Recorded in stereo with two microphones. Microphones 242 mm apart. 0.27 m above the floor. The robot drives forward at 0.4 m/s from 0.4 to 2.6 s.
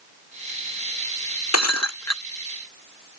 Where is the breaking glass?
80° left.